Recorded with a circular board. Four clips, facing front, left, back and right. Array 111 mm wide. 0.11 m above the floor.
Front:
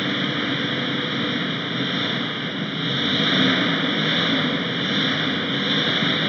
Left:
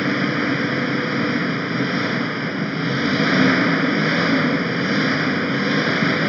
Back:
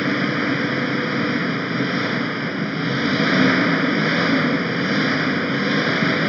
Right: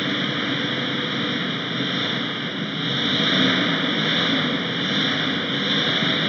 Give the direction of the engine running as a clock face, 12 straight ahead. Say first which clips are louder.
Left 5 dB, back 4 dB; 8 o'clock.